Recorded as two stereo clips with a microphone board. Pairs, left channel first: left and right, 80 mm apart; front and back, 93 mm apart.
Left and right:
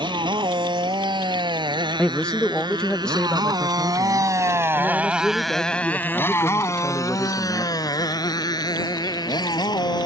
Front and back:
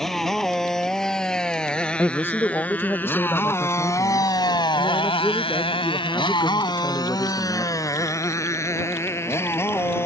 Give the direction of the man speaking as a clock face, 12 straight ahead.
11 o'clock.